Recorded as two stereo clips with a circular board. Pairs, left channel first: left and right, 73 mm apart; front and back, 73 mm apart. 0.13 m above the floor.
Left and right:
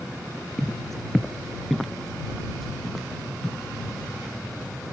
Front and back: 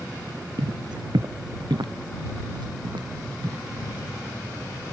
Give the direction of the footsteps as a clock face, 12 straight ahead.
6 o'clock.